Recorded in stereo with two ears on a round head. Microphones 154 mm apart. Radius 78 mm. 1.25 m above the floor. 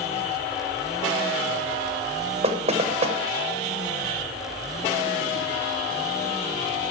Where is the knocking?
40° right (ahead or behind), 0.9 m.